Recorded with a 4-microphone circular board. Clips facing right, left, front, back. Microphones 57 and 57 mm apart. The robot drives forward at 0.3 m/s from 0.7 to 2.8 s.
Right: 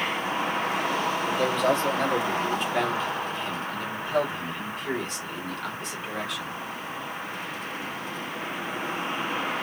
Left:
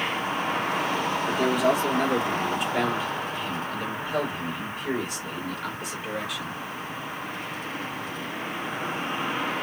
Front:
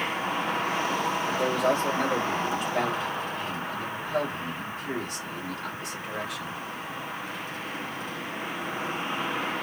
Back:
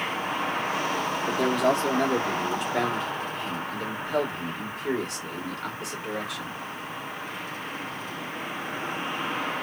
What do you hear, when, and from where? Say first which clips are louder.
1.3 s a man speaking: left 2 dB, back 3 dB; 170° left, 0.8 m; by 6.6 s 175° left, 1.3 m